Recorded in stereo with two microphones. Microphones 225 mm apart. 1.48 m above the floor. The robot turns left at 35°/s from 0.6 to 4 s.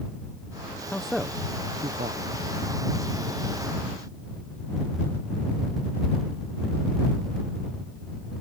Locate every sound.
0.9 s a man speaking: 5° left (ahead or behind); by 2.2 s 40° right (ahead or behind)